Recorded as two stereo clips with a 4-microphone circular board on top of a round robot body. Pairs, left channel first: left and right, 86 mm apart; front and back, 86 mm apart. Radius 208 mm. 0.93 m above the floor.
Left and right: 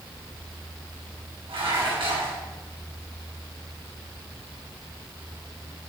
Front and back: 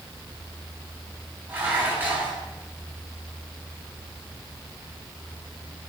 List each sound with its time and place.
1.5 s dishes clattering: 110° right, 5.5 m